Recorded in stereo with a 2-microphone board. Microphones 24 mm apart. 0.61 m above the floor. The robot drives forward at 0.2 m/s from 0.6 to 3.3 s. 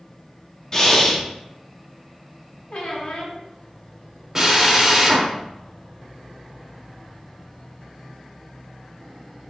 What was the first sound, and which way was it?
Breathing, 25° left (ahead or behind).